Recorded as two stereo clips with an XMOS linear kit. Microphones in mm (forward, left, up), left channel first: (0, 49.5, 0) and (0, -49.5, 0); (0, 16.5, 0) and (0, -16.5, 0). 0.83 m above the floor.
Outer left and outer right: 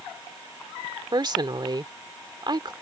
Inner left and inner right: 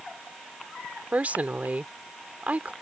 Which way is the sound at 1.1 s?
50° right (ahead or behind).